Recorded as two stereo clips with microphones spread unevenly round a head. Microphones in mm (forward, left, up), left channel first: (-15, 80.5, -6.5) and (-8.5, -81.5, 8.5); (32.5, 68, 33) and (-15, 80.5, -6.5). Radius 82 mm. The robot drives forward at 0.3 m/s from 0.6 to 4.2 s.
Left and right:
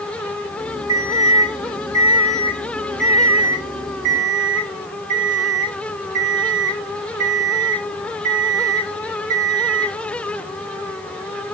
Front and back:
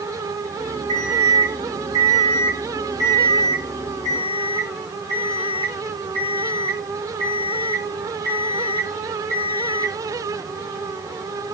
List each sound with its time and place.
0.9 s an alarm clock: 155° right, 1.7 m; by 9.9 s 165° right, 2.5 m